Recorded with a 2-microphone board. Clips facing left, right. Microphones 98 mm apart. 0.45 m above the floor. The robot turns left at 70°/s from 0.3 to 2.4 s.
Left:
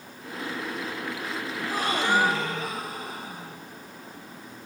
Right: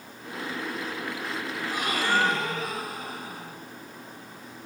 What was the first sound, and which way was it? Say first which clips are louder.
A gasp: left 3 dB; 55° left.